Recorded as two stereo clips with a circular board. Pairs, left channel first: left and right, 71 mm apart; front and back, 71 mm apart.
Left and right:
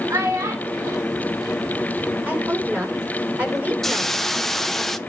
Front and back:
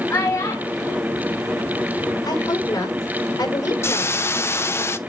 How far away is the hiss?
About 0.7 m.